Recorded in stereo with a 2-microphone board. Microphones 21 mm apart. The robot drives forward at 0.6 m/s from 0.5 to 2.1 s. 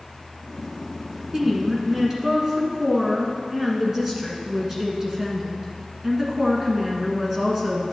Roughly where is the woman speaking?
Centre.